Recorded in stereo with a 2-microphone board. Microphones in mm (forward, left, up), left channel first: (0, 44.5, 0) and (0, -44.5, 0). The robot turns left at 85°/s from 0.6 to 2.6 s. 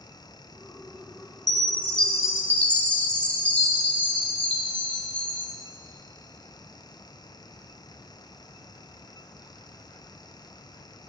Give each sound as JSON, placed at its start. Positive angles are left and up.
{"t": 1.5, "sound": "a chime", "azimuth_deg": 115, "distance_m": 1.1}